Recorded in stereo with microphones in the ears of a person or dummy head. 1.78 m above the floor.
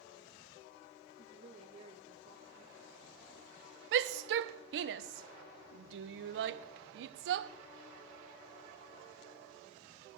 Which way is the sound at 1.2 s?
40° right (ahead or behind).